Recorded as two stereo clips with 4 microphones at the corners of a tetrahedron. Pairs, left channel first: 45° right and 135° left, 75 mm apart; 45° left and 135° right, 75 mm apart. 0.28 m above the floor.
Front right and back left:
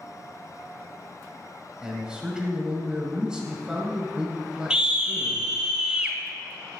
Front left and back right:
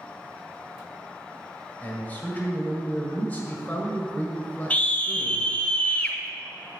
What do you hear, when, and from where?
1.8 s a man speaking: 75° left, 1.4 m
4.7 s a scream: 75° left, 0.9 m